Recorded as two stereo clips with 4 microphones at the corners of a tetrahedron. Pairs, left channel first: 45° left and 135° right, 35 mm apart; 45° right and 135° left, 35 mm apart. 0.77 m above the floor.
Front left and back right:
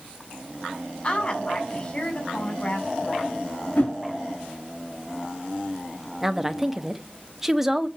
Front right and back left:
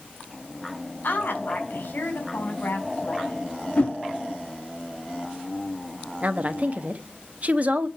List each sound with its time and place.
1.0 s a woman speaking: 15° right, 5 m
3.8 s a whoosh: 10° left, 6 m
6.2 s a woman speaking: 145° left, 1.0 m